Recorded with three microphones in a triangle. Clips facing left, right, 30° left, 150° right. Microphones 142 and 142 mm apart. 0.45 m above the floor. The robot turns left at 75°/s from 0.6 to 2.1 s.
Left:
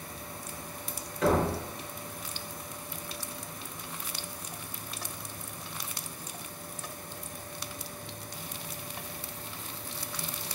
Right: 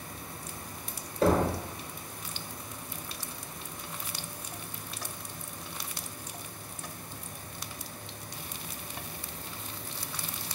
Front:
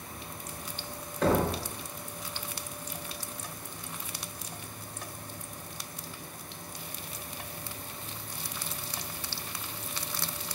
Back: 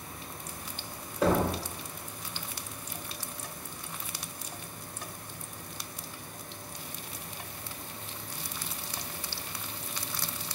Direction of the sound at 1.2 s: 75° right.